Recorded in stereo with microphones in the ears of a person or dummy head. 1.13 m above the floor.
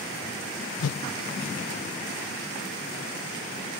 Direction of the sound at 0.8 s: 75° left (ahead or behind).